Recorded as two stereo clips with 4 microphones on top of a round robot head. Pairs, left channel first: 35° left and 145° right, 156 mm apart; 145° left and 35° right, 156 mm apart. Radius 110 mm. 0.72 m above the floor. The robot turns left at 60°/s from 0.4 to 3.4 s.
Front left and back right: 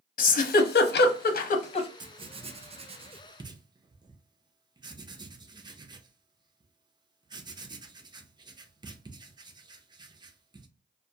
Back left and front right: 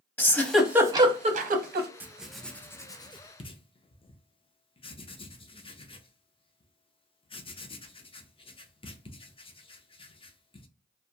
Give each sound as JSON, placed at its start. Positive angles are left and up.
{"t": 0.2, "sound": "a giggle", "azimuth_deg": 65, "distance_m": 0.6}
{"t": 2.0, "sound": "writing", "azimuth_deg": -105, "distance_m": 0.6}